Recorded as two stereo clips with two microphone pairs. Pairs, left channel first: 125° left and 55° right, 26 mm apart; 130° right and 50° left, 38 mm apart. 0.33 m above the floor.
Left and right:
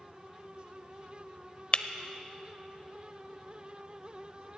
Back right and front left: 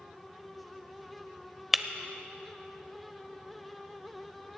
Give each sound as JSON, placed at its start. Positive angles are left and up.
{"t": 1.7, "sound": "breaking glass", "azimuth_deg": 125, "distance_m": 0.6}